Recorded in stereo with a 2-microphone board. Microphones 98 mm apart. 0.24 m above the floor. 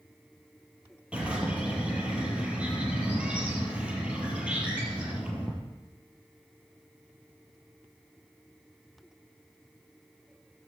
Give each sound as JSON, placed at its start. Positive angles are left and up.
{"t": 1.1, "sound": "a bird", "side_deg": -10, "distance_m": 4.5}